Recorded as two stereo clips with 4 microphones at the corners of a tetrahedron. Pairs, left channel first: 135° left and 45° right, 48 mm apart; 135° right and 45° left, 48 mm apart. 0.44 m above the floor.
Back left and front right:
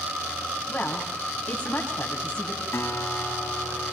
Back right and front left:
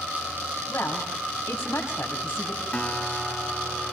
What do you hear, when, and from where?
0.7 s a woman speaking: 170° right, 3 m
2.7 s a guitar: 160° left, 1.6 m